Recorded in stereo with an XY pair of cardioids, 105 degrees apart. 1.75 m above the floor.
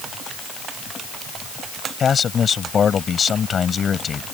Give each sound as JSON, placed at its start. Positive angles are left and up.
{"t": 2.0, "sound": "a man speaking", "azimuth_deg": 45}